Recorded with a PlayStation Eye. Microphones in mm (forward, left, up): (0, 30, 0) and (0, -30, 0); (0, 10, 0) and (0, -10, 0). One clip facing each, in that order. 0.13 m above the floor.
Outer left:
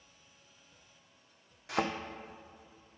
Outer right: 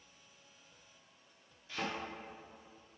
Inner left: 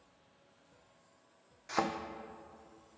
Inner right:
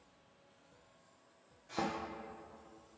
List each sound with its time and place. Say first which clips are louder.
1.7 s a thud: outer left 8 dB, inner left 5 dB; 85° left, 1.0 m